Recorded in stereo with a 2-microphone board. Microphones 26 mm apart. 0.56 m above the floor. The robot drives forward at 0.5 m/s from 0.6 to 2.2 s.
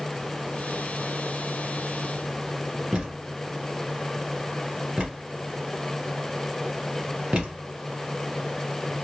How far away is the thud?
About 1.6 m.